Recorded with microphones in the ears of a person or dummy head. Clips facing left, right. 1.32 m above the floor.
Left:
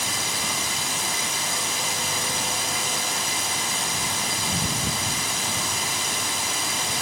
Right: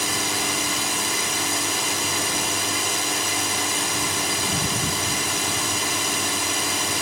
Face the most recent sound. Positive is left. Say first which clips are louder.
# right 5 dB
turn(degrees=-60)  # may be behind; listen again after turning